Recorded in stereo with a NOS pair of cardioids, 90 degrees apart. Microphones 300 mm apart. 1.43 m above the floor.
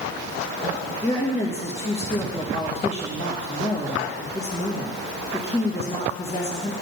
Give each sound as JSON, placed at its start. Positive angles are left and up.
{"t": 1.0, "sound": "a woman speaking", "azimuth_deg": 20, "distance_m": 2.5}